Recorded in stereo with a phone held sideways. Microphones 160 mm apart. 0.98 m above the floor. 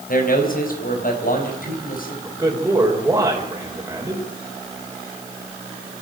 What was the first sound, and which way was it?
A man speaking, 60° left (ahead or behind).